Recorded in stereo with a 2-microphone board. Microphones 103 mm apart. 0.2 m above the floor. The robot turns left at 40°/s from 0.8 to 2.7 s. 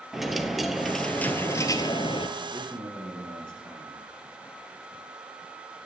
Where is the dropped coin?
Straight behind, 0.8 m; by 2.3 s 125° left, 0.8 m.